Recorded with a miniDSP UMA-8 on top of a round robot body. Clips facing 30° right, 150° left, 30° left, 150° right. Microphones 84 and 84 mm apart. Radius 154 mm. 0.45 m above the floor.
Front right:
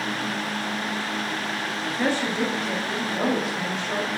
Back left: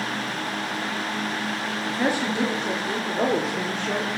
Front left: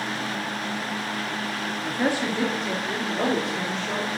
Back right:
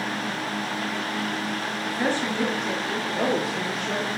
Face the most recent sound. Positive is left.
turn(degrees=130)